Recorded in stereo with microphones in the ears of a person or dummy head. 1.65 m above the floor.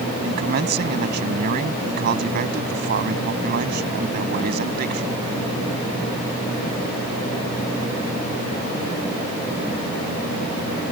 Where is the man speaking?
50° right (ahead or behind).